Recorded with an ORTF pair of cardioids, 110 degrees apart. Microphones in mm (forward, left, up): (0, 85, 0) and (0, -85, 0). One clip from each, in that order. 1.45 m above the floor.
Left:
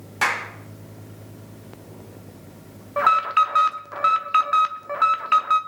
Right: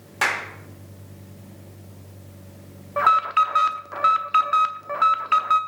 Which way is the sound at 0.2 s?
20° right.